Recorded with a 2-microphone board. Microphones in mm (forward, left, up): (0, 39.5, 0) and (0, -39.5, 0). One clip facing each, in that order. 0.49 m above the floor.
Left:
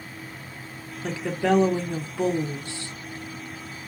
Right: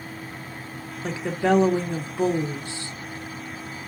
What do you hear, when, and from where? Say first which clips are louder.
1.0 s a woman speaking: right 1 dB; 15° right (ahead or behind), 0.7 m